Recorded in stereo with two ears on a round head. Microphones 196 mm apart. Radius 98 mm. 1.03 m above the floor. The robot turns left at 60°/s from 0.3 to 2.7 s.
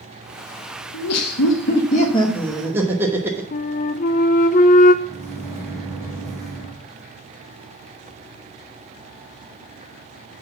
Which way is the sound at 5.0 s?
15° right (ahead or behind).